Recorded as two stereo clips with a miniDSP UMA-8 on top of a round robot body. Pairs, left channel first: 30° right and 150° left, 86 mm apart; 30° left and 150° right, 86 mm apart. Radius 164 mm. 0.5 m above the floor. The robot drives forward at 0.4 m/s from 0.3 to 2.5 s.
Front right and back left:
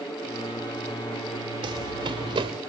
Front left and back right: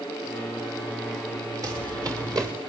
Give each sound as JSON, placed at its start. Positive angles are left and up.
{"t": 1.6, "sound": "running footsteps", "azimuth_deg": 165, "distance_m": 4.5}